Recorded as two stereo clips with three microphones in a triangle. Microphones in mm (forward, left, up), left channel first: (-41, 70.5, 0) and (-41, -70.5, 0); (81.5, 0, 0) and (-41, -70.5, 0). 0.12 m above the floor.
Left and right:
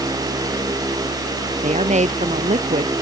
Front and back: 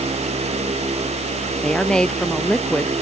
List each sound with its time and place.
1.6 s a woman speaking: 55° right